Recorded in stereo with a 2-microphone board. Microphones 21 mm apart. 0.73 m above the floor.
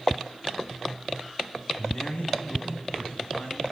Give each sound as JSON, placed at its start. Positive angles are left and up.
{"t": 1.8, "sound": "a man speaking", "side_deg": 65, "distance_m": 5.5}